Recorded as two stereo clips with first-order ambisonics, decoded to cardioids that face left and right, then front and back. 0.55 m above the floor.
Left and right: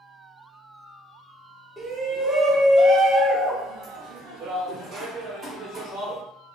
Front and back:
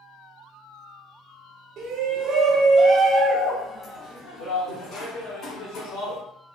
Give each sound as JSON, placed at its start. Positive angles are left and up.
{"t": 1.8, "sound": "a shout", "azimuth_deg": -175, "distance_m": 1.1}